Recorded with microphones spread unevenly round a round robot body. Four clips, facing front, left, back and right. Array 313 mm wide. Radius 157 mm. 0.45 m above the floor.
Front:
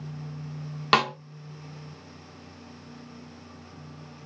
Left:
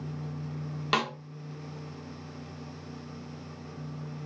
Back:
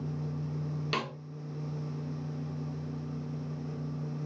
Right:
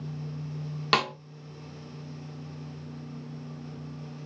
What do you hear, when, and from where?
0.9 s a snare drum: 30° right, 0.9 m